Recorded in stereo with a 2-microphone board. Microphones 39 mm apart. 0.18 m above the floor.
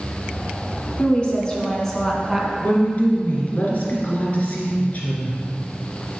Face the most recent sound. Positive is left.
turn(degrees=45)  # may be behind; listen again after turning